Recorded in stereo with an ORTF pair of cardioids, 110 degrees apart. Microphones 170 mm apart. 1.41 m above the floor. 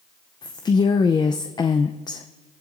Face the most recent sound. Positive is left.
turn(degrees=30)